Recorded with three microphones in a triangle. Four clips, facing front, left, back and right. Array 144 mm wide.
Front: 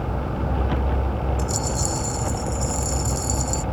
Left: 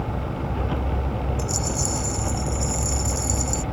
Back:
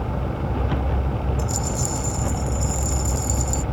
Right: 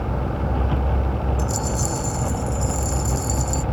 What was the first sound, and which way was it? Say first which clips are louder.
A rattle: right 2 dB, front 1 dB; 35° left.